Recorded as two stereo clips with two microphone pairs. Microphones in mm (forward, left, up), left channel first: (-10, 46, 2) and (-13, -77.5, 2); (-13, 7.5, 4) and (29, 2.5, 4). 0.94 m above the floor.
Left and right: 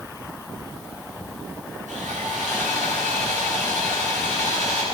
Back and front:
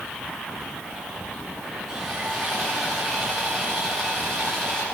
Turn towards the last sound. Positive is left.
turn(degrees=-95)